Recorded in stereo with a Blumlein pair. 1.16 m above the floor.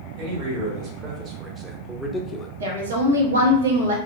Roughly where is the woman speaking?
Ahead right.